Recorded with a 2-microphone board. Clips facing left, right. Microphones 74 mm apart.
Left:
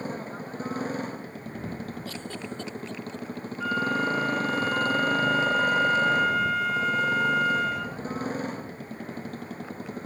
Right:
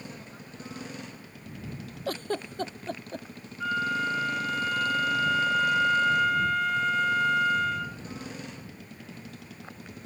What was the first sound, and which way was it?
A motorcycle, 45° left (ahead or behind).